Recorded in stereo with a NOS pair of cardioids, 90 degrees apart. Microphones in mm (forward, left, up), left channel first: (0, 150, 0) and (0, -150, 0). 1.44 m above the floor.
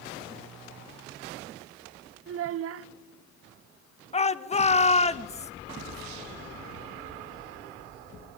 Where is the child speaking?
55° right, 0.6 m.